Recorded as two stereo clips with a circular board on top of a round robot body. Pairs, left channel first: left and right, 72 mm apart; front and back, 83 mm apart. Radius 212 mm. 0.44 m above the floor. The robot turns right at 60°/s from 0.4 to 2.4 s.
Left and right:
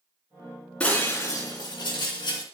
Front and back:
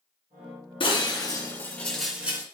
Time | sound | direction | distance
0.8 | breaking glass | 15° left | 3.5 m